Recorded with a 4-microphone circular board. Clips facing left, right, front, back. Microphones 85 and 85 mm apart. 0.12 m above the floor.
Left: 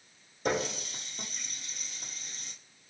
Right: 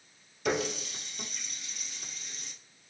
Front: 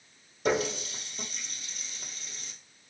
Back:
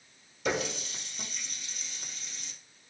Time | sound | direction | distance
0.5 | a running tap | 40° left | 1.9 m